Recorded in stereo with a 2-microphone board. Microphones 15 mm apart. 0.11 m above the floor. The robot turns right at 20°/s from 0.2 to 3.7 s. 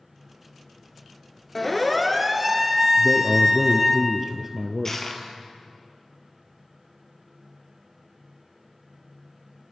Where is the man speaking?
5° right (ahead or behind), 1.9 m; by 5.1 s 20° right (ahead or behind), 1.9 m.